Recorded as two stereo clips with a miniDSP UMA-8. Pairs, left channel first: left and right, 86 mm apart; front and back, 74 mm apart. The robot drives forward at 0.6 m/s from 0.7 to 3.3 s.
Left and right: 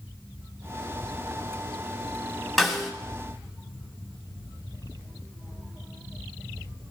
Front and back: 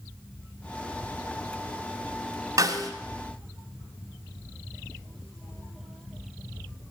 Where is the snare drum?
Straight behind, 1.7 m.